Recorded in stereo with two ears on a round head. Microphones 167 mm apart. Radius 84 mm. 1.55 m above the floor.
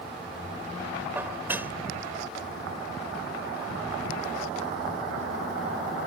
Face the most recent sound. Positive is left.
turn(degrees=-10)  # may be behind; listen again after turning